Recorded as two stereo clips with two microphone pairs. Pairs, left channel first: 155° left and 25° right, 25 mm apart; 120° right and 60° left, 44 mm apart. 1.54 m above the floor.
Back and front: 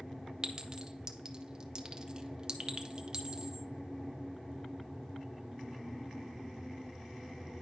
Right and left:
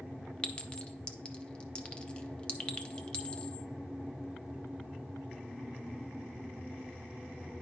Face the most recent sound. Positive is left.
turn(degrees=-70)